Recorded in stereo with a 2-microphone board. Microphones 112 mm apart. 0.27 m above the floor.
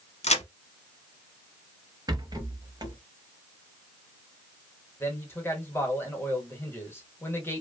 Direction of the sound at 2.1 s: 35° right (ahead or behind).